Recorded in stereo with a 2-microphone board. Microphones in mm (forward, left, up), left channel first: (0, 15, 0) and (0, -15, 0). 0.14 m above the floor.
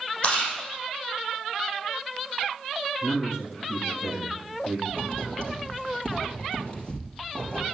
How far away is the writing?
About 4 m.